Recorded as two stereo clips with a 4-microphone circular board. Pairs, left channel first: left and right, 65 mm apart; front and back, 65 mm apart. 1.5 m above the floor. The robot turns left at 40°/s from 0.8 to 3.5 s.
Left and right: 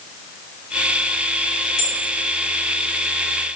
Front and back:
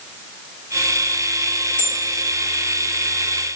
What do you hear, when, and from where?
1.8 s a bell: 20° right, 1.1 m; by 2.0 s 25° right, 1.1 m